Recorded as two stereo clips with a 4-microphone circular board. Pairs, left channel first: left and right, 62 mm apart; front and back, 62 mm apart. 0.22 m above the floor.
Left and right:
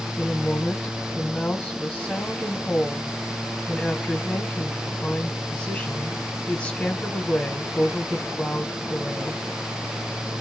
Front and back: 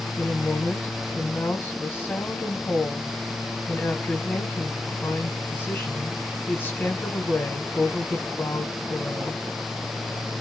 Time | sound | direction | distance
0.2 | a woman speaking | 30° left | 1.6 m